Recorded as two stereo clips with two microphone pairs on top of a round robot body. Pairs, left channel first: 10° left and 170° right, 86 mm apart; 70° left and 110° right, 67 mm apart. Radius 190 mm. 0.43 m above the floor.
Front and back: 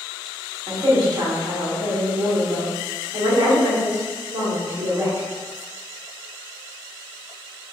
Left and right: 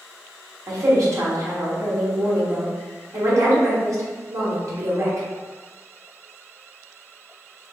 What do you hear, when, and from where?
0.7 s a woman speaking: 145° right, 1.5 m